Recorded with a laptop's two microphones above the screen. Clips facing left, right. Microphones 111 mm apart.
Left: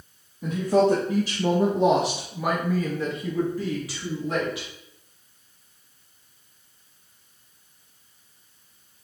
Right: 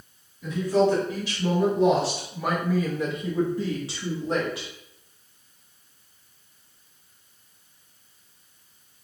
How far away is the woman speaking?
About 1.3 m.